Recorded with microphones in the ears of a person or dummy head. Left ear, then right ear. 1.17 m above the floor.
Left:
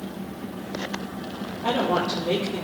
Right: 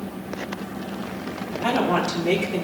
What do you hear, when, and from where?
1.6 s a woman speaking: 65° right (ahead or behind), 3.5 m; by 2.6 s 60° right (ahead or behind), 4 m